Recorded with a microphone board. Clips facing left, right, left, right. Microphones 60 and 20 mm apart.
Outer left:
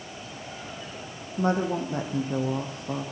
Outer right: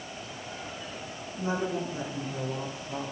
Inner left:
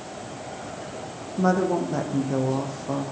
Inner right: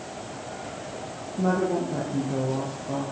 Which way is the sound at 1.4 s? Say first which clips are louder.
Outer left 5 dB, inner left 2 dB; 65° left (ahead or behind).